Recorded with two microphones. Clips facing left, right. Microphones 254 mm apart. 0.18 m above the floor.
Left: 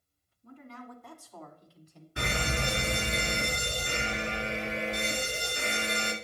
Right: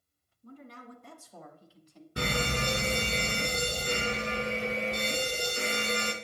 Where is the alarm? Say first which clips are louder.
Right 2 dB; 45° right (ahead or behind), 1.4 m.